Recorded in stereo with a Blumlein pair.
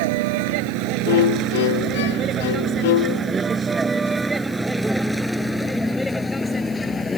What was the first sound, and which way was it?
A vehicle, 50° right.